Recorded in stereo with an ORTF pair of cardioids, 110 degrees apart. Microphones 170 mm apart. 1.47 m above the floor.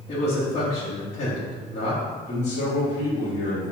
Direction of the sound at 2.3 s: 45° left.